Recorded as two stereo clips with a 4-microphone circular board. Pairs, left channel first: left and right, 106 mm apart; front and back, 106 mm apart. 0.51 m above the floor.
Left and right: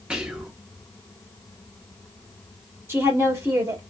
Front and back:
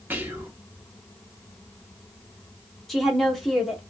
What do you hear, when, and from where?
0.1 s whispering: 155° right, 0.7 m
2.9 s a woman speaking: 85° right, 1.3 m